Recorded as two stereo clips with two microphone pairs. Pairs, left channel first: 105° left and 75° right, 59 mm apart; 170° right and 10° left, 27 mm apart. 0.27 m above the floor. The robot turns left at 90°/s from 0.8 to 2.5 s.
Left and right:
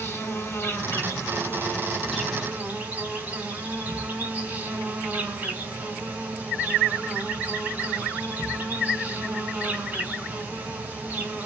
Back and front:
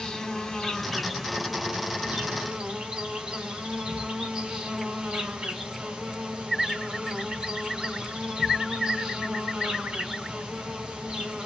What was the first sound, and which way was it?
An insect, 130° left.